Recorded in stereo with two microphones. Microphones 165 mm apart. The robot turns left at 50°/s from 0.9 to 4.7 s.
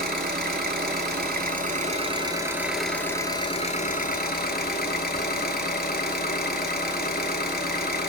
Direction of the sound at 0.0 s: 85° right.